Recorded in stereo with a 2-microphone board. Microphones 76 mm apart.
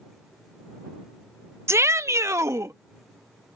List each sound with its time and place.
1.7 s a shout: 35° right (ahead or behind); by 2.8 s 45° right (ahead or behind)